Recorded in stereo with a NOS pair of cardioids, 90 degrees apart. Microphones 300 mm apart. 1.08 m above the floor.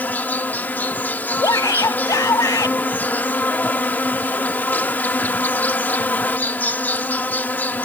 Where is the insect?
5° left.